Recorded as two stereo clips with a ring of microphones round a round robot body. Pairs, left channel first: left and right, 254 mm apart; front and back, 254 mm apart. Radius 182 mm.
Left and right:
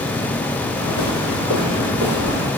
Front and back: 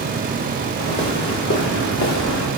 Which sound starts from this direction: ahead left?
Footsteps, at 0.8 s.